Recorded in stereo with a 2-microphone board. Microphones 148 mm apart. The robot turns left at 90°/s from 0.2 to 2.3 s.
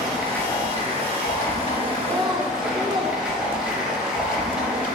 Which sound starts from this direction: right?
A child speaking, at 2.0 s.